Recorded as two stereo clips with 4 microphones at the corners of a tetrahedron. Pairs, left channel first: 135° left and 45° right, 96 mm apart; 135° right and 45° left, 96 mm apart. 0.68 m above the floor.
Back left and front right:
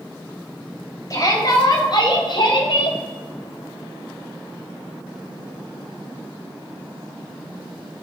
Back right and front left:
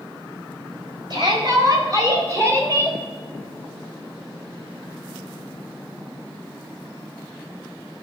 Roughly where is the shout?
Left.